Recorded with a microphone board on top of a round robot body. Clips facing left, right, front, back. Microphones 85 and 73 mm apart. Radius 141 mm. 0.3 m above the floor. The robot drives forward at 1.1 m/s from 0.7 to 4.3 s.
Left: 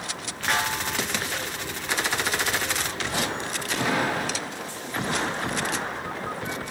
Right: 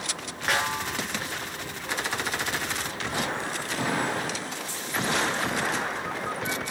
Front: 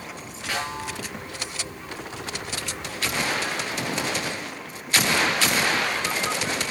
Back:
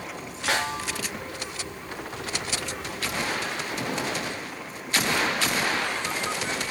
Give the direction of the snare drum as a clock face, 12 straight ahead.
6 o'clock.